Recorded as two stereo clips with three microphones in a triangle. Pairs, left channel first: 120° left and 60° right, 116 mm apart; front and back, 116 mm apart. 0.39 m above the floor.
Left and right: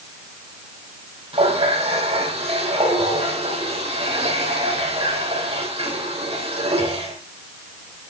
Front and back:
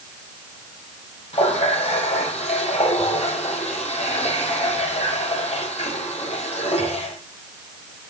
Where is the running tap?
25° right, 8.5 m.